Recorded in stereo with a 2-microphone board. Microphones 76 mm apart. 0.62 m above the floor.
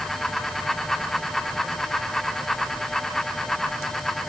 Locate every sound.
Only background noise.